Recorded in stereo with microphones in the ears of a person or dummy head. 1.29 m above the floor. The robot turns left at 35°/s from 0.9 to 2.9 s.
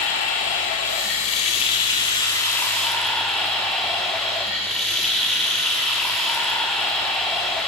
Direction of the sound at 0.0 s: 75° left.